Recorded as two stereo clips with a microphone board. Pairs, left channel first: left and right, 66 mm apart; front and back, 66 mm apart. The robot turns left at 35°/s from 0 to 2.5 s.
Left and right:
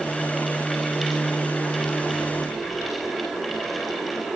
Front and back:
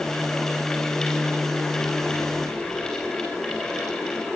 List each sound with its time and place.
Only background noise.